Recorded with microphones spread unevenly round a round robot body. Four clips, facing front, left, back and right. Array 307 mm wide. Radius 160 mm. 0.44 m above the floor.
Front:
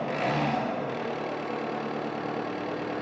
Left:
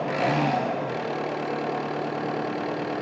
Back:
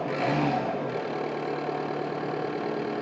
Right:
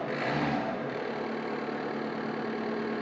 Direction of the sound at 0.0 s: 80° left.